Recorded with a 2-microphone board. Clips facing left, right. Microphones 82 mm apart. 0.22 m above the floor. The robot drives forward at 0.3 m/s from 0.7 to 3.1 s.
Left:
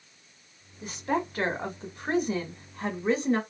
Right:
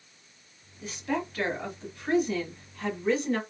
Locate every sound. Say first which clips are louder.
0.8 s a woman speaking: left 2 dB; 25° left (ahead or behind), 1.4 m